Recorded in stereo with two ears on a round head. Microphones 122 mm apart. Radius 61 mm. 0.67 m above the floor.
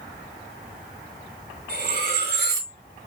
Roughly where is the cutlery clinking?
Right.